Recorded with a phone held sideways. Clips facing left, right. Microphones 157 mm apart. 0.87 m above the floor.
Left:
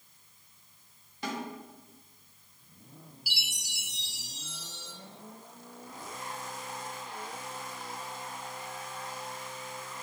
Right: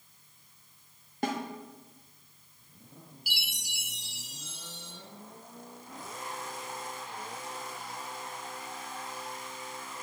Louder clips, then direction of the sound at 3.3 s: Right 3 dB; 60° right (ahead or behind).